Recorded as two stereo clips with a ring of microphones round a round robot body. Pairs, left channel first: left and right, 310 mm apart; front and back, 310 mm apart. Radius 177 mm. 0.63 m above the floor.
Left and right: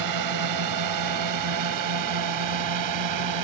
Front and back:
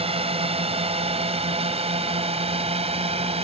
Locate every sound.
0.0 s a drone: 110° right